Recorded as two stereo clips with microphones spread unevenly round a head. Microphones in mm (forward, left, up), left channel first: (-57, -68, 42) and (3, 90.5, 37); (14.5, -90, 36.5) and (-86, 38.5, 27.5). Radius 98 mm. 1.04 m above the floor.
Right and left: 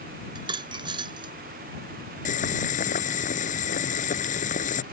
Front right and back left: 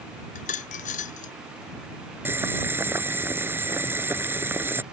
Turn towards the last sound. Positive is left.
turn(degrees=-155)